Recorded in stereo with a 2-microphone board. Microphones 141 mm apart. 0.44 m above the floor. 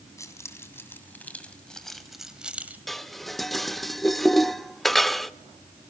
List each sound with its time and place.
0.2 s keys jangling: 20° left (ahead or behind), 2.5 m; by 2.8 s 15° right (ahead or behind), 1.7 m
2.9 s dishes clattering: centre (ahead or behind), 0.5 m